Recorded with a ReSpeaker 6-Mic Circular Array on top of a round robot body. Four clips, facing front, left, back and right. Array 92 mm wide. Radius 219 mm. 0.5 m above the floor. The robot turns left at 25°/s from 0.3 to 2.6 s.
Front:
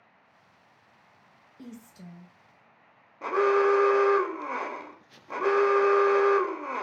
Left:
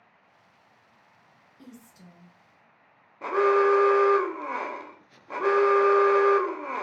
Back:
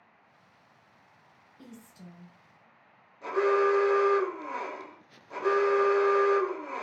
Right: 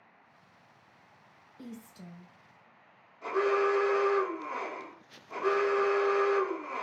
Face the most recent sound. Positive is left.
turn(degrees=50)